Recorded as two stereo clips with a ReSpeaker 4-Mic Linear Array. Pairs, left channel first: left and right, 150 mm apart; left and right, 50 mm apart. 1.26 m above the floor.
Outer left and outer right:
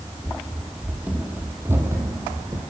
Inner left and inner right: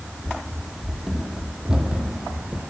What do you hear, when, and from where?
0.2 s running footsteps: centre (ahead or behind), 1.9 m; by 2.6 s 25° right (ahead or behind), 3.5 m